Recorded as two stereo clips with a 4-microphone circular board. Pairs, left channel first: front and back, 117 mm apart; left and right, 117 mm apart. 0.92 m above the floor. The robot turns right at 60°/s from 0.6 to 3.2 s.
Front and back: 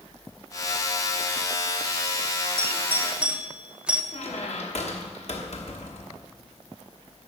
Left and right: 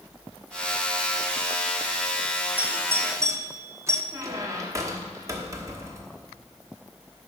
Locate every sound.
2.6 s a doorbell: 150° right, 0.7 m; by 4.0 s 110° right, 0.7 m
4.1 s a squeak: 30° right, 1.2 m